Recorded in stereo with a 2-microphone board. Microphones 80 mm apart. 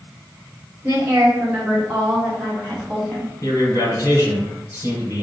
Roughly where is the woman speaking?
Right.